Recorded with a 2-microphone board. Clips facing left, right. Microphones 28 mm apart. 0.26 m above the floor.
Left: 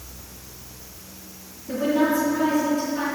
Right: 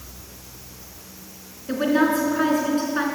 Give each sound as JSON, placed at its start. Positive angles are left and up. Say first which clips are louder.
{"t": 1.7, "sound": "a woman speaking", "louder": "right 1 dB", "side_deg": -65, "distance_m": 3.0}